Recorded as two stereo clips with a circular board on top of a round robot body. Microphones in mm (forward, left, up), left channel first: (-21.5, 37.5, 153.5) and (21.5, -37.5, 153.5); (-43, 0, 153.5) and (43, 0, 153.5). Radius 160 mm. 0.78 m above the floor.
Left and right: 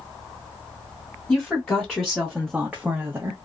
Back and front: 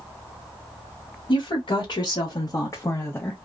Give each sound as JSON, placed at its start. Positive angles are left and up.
{"t": 1.3, "sound": "a woman speaking", "azimuth_deg": -165, "distance_m": 1.4}